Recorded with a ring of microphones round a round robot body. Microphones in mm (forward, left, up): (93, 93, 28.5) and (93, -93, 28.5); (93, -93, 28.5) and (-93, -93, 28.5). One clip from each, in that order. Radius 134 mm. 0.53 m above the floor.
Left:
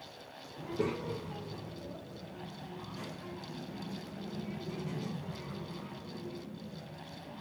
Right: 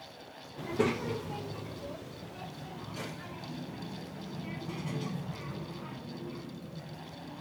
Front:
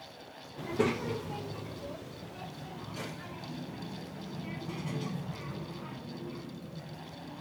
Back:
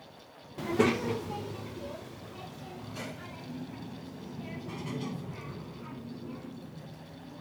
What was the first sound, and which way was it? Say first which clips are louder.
A child speaking: right 4 dB, back 4 dB; 140° right.